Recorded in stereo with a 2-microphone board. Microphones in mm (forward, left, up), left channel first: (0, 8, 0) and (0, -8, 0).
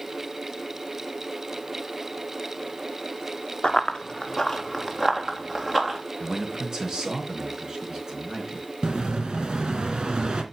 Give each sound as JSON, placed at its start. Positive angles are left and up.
{"t": 3.6, "sound": "running footsteps", "side_deg": 45, "distance_m": 1.2}
{"t": 6.2, "sound": "a man speaking", "side_deg": -40, "distance_m": 4.0}
{"t": 8.8, "sound": "an explosion", "side_deg": -65, "distance_m": 2.0}